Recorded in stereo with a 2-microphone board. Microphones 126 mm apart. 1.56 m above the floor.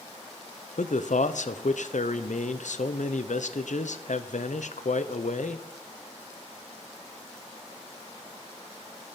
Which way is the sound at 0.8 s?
85° left.